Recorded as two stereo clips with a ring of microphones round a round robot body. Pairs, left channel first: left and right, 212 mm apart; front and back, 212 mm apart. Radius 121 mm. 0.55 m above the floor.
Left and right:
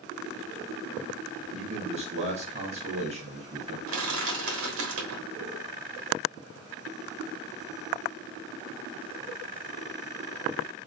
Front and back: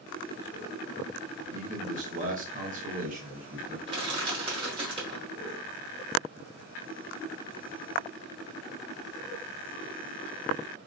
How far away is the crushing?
About 1.3 m.